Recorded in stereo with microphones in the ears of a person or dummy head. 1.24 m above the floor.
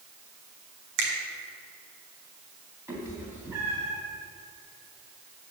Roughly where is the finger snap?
Right.